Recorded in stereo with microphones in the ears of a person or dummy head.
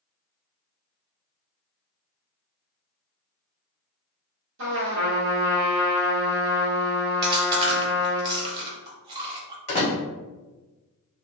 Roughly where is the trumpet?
Right.